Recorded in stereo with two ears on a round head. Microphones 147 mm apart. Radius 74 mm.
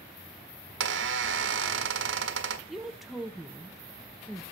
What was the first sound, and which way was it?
A squeak, 85° right.